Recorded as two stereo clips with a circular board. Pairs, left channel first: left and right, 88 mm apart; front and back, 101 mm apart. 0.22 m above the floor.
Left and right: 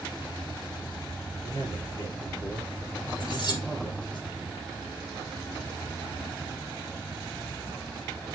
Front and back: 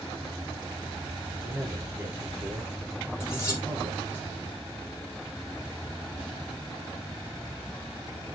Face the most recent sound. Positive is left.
turn(degrees=65)